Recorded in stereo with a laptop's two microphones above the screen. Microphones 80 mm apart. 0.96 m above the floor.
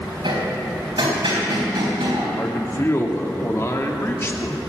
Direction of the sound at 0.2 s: 80° right.